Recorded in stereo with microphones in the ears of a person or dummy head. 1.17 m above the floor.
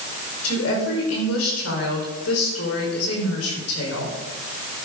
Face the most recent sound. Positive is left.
turn(degrees=85)